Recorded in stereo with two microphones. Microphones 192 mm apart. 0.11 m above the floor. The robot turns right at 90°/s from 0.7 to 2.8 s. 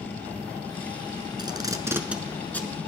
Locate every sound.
1.4 s tape being pulled: 20° right (ahead or behind), 0.9 m; by 2.8 s 15° left (ahead or behind), 0.9 m